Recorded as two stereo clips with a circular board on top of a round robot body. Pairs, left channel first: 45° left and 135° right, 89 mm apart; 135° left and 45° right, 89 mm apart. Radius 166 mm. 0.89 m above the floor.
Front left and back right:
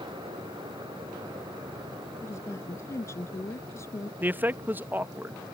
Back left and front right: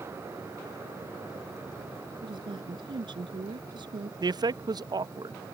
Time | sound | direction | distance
2.2 | a woman speaking | 15° right | ?
4.2 | a man speaking | 70° right | ?